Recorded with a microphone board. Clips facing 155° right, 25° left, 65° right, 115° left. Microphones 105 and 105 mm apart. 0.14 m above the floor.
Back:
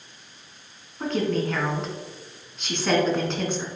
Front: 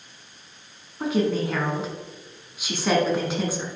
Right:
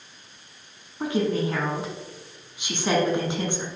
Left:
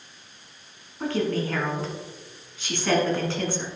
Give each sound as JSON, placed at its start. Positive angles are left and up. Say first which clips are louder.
{"t": 1.0, "sound": "a woman speaking", "louder": "front 1 dB, right 1 dB", "azimuth_deg": -45, "distance_m": 1.6}